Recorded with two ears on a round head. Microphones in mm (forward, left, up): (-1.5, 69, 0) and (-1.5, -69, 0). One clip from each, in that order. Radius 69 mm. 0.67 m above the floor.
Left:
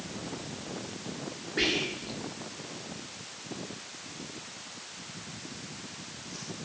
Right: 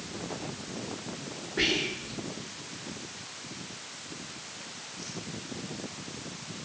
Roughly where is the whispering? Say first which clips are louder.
Right 1 dB; left.